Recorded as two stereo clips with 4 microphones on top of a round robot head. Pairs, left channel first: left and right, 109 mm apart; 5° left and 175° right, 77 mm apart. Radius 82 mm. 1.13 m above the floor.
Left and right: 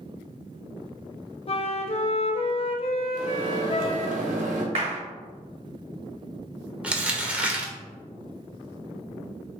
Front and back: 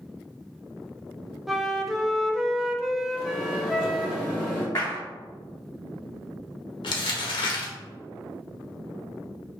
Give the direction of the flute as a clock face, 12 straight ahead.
9 o'clock.